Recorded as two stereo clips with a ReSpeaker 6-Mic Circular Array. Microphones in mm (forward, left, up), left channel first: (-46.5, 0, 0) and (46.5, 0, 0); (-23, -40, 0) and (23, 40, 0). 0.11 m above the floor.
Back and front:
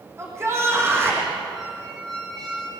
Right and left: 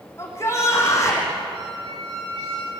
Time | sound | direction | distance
0.2 | a shout | 60° right | 6.5 m
1.5 | a squeak | 90° left | 9.5 m